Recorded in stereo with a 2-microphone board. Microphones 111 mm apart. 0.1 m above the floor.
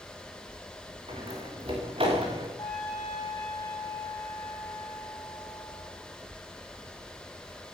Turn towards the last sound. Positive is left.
turn(degrees=35)  # may be behind; listen again after turning